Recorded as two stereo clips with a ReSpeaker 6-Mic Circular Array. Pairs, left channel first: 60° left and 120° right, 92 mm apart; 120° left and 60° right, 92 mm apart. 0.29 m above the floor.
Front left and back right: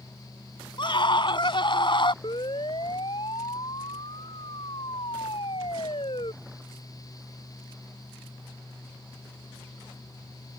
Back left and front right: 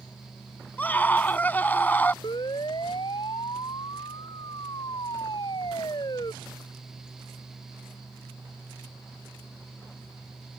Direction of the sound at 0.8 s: 50° left.